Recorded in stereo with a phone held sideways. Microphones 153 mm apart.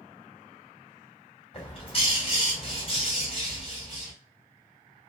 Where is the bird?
35° left (ahead or behind), 1.8 m.